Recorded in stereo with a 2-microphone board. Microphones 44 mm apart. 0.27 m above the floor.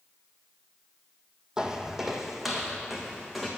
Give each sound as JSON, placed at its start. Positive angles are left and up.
{"t": 1.6, "sound": "footsteps", "side_deg": -15, "distance_m": 0.7}